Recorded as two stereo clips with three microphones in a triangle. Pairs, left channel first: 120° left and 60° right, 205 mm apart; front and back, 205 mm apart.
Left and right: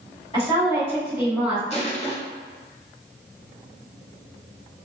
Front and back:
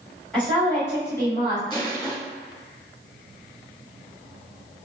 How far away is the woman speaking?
About 1.8 m.